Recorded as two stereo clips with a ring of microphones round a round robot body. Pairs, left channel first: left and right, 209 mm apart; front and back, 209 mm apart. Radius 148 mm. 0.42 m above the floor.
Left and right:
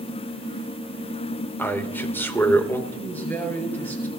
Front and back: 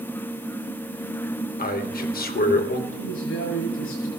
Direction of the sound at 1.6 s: 15° left.